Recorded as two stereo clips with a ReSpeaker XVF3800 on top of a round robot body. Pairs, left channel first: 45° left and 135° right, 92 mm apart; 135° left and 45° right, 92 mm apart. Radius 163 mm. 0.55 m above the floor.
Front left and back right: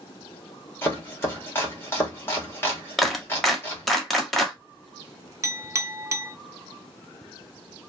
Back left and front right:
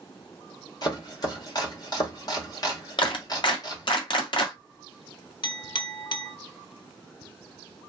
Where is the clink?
165° left, 0.7 m.